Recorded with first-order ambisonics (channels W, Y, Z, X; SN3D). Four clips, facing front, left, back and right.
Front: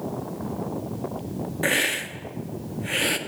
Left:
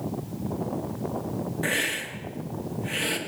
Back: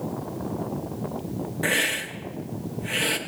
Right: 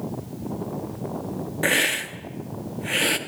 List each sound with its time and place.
1.6 s a hiss: 70° right, 0.7 m